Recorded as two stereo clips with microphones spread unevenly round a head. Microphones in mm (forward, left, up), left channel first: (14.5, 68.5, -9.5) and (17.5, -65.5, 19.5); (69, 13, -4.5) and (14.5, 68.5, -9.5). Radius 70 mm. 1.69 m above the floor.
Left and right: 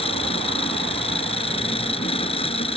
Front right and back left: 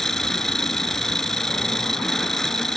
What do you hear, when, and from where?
0.0 s an engine running: 40° left